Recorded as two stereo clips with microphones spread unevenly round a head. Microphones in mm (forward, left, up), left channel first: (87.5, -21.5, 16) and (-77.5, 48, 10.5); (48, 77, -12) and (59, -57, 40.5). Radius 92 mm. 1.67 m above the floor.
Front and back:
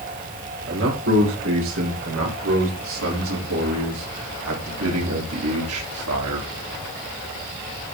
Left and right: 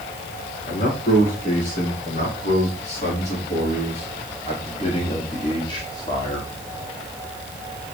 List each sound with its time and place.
0.7 s a man speaking: 140° left, 5.5 m; by 6.5 s 170° left, 3.5 m